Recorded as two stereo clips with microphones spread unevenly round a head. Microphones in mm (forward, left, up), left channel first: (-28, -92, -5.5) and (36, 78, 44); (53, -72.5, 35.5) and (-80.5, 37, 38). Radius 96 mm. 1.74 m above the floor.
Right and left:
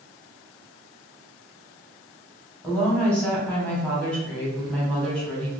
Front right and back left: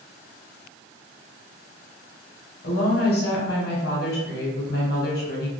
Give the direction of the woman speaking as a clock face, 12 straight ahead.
12 o'clock.